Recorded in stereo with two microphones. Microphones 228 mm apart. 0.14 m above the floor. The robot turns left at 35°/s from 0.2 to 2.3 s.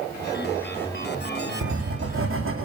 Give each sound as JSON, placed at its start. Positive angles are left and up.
{"t": 1.6, "sound": "writing", "side_deg": -80, "distance_m": 3.5}